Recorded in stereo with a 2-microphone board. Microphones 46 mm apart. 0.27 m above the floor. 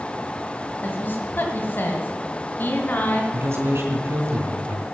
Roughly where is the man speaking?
Right.